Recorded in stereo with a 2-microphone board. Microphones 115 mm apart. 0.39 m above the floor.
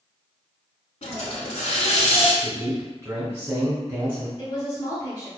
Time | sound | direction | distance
1.0 | a hiss | 75° left (ahead or behind) | 0.6 m
2.4 | a man speaking | 15° right (ahead or behind) | 1.3 m
4.4 | a woman speaking | 35° left (ahead or behind) | 1.1 m